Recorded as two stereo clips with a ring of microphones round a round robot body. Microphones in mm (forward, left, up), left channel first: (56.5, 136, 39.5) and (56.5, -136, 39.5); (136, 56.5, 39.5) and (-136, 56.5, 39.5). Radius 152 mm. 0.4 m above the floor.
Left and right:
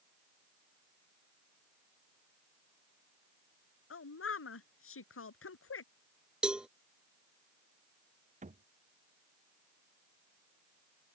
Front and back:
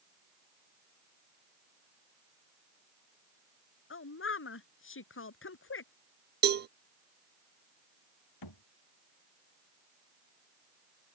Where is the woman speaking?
45° left.